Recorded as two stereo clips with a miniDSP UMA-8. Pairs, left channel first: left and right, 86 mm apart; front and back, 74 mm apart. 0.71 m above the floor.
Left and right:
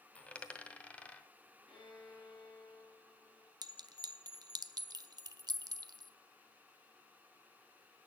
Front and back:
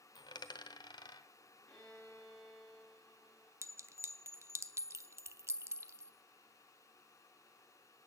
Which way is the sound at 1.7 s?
70° left.